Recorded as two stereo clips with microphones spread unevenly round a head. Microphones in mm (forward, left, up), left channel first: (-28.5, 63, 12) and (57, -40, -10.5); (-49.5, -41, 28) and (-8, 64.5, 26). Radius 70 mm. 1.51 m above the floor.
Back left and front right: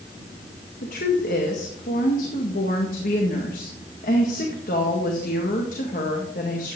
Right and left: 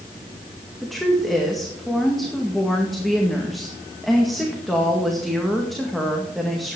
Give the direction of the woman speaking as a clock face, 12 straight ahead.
7 o'clock.